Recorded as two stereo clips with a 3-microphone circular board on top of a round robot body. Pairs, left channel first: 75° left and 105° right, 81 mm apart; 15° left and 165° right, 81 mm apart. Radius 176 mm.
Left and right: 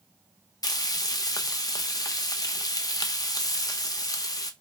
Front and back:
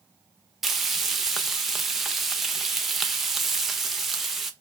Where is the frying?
110° left, 0.8 m.